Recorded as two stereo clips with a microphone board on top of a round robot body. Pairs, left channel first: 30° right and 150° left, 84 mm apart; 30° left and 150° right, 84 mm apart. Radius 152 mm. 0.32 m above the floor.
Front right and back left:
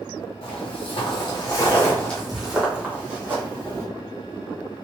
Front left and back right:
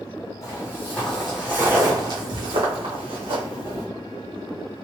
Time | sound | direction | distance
0.4 | footsteps | 30° right | 1.0 m